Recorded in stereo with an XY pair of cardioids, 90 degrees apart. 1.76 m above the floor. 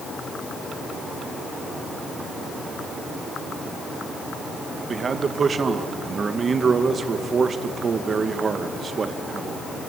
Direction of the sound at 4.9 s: 45° right.